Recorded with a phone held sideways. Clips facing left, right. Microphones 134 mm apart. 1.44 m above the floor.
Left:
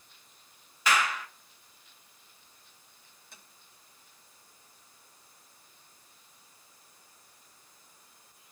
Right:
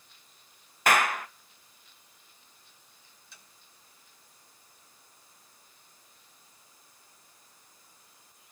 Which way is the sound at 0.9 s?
55° right (ahead or behind).